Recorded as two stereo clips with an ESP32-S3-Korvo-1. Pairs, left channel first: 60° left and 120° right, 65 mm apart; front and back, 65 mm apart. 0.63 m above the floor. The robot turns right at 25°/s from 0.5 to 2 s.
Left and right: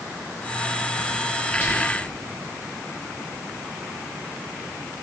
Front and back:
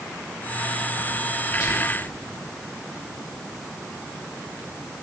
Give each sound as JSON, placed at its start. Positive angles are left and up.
{"t": 1.6, "sound": "whispering", "azimuth_deg": 5, "distance_m": 2.5}